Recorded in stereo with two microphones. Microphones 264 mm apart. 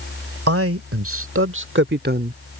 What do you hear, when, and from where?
0.5 s a man speaking: 60° right (ahead or behind); by 2.4 s 30° right (ahead or behind)